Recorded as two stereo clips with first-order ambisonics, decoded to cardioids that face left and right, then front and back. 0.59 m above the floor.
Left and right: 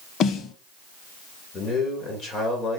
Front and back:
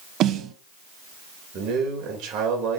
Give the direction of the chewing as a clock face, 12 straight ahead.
I don't hear chewing.